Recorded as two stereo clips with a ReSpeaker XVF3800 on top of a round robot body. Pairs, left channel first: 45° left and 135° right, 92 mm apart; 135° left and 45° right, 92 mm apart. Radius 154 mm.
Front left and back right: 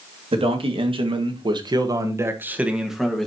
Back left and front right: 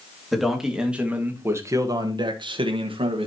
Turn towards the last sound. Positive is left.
turn(degrees=-40)